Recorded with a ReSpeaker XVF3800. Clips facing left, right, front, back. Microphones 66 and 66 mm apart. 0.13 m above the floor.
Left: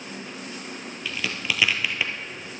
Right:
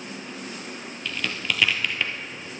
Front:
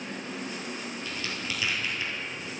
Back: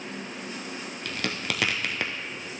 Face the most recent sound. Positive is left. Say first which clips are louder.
# even, back 6 dB
turn(degrees=175)